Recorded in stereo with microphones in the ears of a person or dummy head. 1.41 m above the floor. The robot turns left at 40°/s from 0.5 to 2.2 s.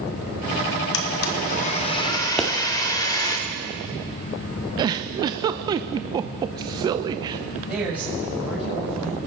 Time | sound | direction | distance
0.9 | a blender | 75° left | 1.5 m
2.4 | a pop | 5° left (ahead or behind) | 1.5 m
4.8 | a giggle | 20° right (ahead or behind) | 0.6 m
7.7 | a woman speaking | 10° right (ahead or behind) | 6.5 m